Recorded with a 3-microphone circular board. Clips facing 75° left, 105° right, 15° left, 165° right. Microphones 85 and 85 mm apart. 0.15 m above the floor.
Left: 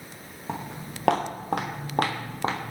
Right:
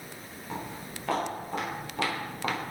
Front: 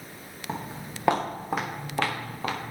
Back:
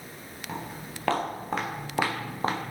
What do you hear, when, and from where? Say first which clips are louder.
0.5 s footsteps: left 3 dB, front 2 dB; 80° left, 3 m; by 2.7 s 145° left, 1.6 m